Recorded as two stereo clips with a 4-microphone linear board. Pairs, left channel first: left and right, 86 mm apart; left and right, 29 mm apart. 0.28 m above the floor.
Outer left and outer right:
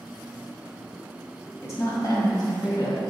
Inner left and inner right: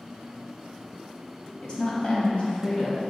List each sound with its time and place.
1.6 s a woman speaking: 35° left (ahead or behind), 1.4 m; by 3.0 s 55° left (ahead or behind), 1.8 m